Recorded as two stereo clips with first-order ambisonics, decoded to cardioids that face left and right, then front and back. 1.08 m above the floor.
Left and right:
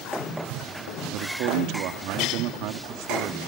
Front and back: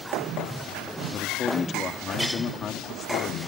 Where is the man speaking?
60° right.